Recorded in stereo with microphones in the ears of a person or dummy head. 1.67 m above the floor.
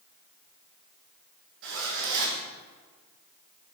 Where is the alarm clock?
I don't hear an alarm clock.